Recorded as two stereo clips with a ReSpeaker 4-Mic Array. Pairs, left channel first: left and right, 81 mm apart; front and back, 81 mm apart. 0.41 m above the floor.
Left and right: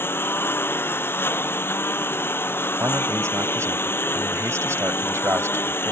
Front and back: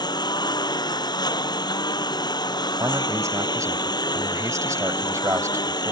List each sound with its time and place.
0.0 s a lawn mower: 30° left
2.8 s a man speaking: 140° right